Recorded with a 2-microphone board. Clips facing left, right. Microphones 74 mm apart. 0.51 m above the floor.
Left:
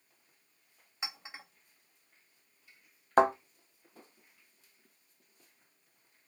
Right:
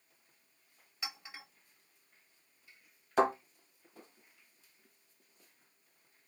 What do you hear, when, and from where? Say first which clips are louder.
1.0 s a clink: left 1 dB; 25° left (ahead or behind), 1.2 m
3.2 s a thud: left 4 dB; 50° left (ahead or behind), 1.1 m